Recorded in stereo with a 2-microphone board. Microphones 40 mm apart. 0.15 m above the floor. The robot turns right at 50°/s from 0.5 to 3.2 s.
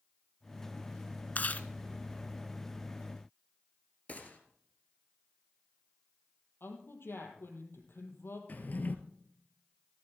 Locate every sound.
1.4 s chewing: 45° left (ahead or behind), 0.6 m; by 1.7 s 40° left (ahead or behind), 0.6 m
4.1 s a gunshot: 35° left (ahead or behind), 2 m
6.6 s a woman speaking: 75° left (ahead or behind), 3.5 m
8.5 s a drawer: 45° left (ahead or behind), 1.1 m